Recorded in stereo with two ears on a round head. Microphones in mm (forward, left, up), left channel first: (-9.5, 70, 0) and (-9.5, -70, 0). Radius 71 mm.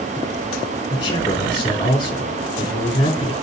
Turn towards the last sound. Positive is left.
turn(degrees=30)  # may be behind; listen again after turning